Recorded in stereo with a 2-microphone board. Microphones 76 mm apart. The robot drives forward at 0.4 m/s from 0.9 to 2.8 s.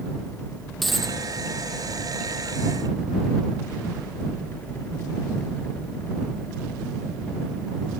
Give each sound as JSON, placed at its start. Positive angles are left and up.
{"t": 0.8, "sound": "a dropped coin", "side_deg": 0, "distance_m": 2.0}